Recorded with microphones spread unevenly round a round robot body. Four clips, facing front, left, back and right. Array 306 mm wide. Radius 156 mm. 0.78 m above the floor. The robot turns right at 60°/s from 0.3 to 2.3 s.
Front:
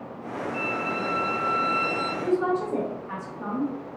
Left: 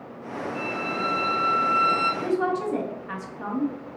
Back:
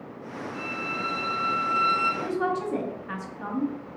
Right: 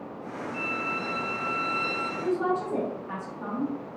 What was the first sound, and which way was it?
A violin, 20° left.